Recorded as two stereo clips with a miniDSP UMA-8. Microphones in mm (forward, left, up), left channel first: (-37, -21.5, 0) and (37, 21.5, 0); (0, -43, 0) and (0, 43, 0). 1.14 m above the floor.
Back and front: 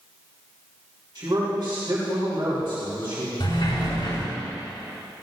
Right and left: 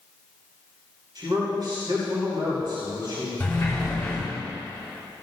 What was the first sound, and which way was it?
A man speaking, 55° left.